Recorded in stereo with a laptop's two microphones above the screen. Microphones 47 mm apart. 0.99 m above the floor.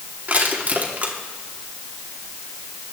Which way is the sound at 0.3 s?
40° right (ahead or behind).